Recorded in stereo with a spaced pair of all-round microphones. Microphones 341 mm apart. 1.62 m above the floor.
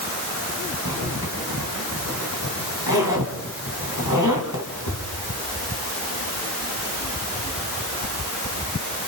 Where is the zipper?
60° left (ahead or behind), 4.5 m.